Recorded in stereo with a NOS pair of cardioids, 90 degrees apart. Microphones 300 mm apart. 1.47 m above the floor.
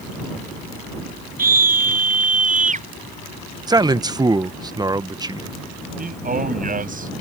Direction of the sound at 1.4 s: 30° right.